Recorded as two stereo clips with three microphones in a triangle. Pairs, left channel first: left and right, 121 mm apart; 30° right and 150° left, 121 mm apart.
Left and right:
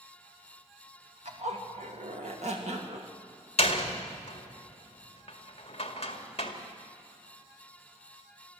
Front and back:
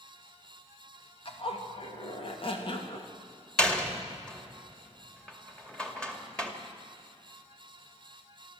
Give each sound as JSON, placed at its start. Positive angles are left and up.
{"t": 1.2, "sound": "a zipper", "azimuth_deg": -70, "distance_m": 2.5}
{"t": 3.6, "sound": "a door slam", "azimuth_deg": 50, "distance_m": 2.0}